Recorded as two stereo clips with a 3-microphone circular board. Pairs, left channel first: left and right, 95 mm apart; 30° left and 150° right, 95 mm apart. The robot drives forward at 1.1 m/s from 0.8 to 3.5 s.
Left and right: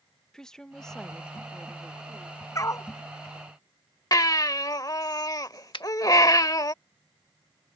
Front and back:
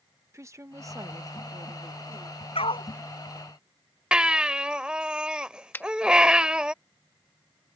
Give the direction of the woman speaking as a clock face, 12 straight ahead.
6 o'clock.